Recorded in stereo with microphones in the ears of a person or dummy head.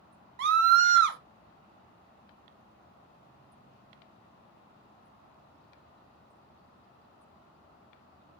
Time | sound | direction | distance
0.4 | a scream | 65° right (ahead or behind) | 0.6 m